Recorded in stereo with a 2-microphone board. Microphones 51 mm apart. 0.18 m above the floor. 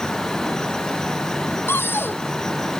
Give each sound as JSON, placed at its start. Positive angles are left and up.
{"t": 1.7, "sound": "a cupboard door", "side_deg": 50}